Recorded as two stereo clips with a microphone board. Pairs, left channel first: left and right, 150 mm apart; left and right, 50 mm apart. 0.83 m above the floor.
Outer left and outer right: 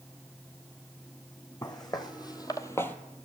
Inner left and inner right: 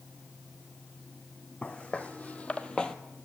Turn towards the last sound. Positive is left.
turn(degrees=10)  # may be behind; listen again after turning